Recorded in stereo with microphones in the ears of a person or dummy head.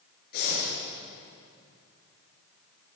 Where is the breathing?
50° left (ahead or behind), 8 m.